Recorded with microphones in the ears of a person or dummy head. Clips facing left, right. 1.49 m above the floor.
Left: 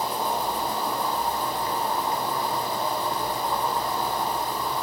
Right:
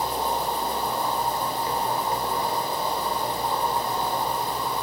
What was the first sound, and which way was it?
An insect, 25° right (ahead or behind).